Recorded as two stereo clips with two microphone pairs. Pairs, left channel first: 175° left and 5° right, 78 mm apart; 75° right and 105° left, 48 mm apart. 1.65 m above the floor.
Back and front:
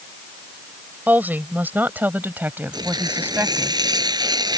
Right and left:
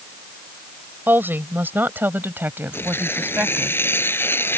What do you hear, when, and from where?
1.1 s a woman speaking: 60° left
2.7 s tearing paper: 35° right